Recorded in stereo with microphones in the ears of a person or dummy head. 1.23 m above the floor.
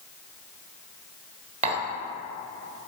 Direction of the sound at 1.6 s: 35° right (ahead or behind).